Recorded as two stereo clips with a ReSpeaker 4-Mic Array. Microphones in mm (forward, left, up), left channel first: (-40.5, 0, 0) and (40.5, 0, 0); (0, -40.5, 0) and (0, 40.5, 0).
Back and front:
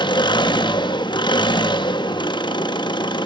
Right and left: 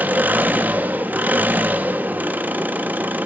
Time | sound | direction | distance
0.0 | an engine running | 160° left | 1.0 m